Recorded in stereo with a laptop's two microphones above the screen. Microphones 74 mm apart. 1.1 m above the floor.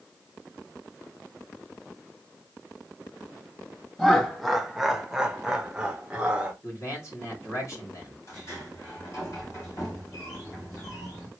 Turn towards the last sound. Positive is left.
turn(degrees=45)  # may be behind; listen again after turning